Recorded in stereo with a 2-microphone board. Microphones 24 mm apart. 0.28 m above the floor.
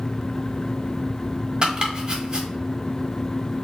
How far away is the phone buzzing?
I don't hear a phone buzzing.